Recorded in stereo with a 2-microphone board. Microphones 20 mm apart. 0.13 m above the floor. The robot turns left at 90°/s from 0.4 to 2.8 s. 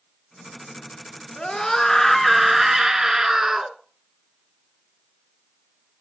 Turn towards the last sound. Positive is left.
turn(degrees=-50)